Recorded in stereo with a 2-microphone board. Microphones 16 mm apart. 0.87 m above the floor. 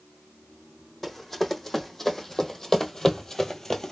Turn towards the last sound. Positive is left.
turn(degrees=30)  # may be behind; listen again after turning